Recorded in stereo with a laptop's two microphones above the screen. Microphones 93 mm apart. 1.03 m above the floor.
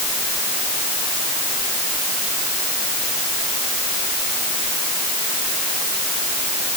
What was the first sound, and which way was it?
Only background noise.